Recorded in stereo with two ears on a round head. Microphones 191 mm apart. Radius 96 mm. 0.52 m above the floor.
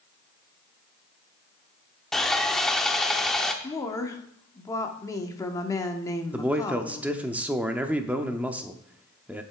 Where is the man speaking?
5° right (ahead or behind), 0.6 m.